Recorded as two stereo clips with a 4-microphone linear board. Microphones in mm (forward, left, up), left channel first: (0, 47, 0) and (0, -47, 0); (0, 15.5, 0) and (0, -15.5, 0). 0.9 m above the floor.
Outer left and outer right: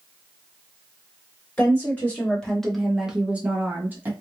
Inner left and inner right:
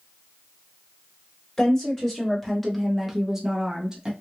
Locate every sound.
1.6 s a woman speaking: 20° left (ahead or behind), 1.2 m; by 4.1 s 20° right (ahead or behind), 1.2 m